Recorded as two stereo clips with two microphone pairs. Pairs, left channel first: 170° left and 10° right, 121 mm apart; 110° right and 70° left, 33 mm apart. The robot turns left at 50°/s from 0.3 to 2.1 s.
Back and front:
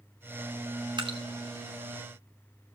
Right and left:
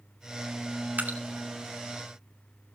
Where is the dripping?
40° left, 1.7 m; by 1.2 s 30° left, 1.7 m.